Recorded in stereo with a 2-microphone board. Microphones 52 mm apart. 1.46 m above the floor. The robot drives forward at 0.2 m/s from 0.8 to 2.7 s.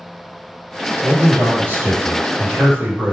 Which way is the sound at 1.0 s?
50° right (ahead or behind).